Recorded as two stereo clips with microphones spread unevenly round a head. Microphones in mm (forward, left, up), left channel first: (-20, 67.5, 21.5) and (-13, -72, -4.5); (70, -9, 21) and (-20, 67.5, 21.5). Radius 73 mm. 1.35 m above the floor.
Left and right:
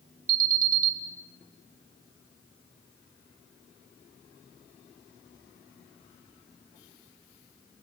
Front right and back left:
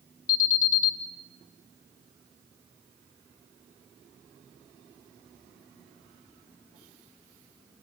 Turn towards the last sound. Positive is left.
turn(degrees=-55)